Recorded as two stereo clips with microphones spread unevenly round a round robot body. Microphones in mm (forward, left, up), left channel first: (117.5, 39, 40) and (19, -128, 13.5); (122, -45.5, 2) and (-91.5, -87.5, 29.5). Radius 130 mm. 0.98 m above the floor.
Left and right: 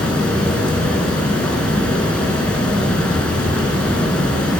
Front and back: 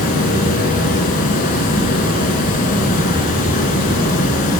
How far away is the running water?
About 1.0 m.